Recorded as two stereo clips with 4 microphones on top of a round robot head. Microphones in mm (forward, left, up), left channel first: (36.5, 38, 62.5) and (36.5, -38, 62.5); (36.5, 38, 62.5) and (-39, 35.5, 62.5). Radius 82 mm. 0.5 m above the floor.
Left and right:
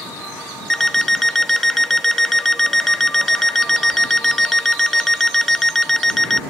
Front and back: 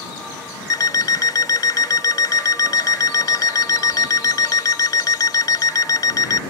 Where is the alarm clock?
5° left.